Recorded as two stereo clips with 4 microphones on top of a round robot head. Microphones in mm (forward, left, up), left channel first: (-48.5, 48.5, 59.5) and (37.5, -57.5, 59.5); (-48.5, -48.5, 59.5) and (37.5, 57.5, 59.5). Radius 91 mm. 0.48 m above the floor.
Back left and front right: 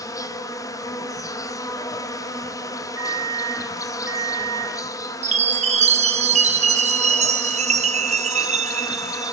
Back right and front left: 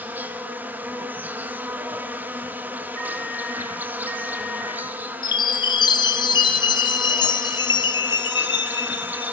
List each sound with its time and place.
0.0 s an insect: 110° left, 1.6 m
3.0 s an alarm clock: 25° left, 5 m
5.2 s a chime: 75° right, 1.3 m